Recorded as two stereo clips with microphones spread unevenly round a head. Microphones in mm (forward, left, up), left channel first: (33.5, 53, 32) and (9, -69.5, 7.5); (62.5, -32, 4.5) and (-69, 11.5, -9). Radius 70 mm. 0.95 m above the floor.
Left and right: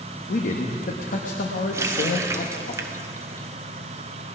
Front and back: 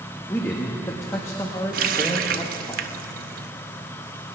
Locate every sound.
0.3 s a man speaking: 55° left, 1.1 m
1.7 s a running tap: 170° right, 0.7 m